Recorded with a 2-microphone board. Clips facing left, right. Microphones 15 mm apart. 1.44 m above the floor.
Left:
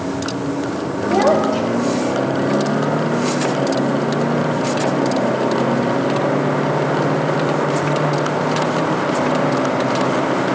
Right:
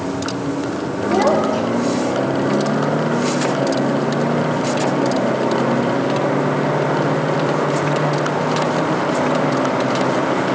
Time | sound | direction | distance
1.1 | a child speaking | 15° left (ahead or behind) | 4 m